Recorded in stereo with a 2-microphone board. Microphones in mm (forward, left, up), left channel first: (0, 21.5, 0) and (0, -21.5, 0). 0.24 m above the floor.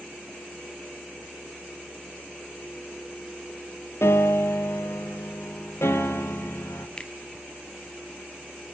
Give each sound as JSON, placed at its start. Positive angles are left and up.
{"t": 4.0, "sound": "a piano", "side_deg": 75, "distance_m": 1.4}
{"t": 7.0, "sound": "a finger snap", "side_deg": 25, "distance_m": 1.1}